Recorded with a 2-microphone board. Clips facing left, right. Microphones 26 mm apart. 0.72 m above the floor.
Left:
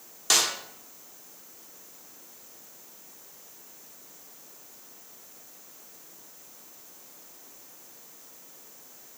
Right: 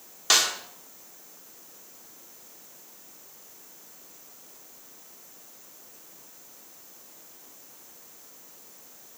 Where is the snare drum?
20° right (ahead or behind), 2 m.